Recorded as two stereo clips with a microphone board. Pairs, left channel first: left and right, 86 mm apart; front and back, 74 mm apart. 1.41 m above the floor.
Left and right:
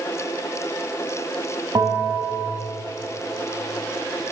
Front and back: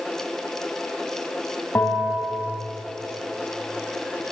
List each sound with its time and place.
1.8 s a bell: 55° right, 3.5 m